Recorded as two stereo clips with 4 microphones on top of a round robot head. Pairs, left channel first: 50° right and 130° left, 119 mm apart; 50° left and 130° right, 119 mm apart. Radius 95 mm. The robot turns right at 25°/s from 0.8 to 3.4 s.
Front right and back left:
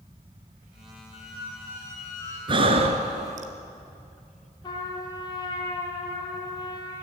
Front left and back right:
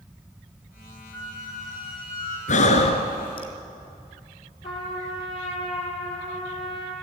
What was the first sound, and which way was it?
A squeak, 20° right.